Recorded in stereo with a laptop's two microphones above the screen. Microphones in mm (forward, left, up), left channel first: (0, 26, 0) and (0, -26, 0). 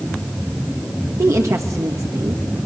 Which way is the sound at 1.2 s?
70° right (ahead or behind).